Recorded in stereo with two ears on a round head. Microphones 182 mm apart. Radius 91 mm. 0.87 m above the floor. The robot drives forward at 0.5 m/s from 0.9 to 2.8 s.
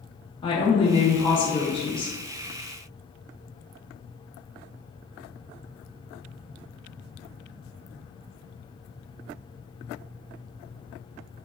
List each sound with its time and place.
0.4 s a woman speaking: 25° left (ahead or behind), 0.9 m